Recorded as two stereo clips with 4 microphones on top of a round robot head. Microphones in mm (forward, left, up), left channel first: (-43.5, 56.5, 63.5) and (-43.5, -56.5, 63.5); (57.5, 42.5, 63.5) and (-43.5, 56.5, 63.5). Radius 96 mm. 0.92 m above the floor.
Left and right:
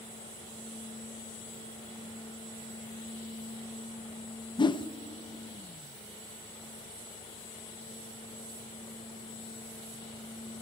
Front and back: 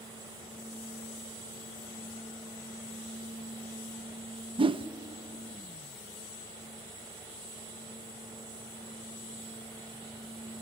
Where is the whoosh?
135° left, 0.6 m.